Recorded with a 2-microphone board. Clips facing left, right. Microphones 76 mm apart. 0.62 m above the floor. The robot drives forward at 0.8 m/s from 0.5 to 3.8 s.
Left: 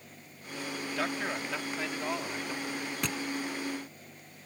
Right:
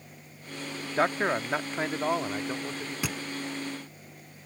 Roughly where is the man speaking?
Right.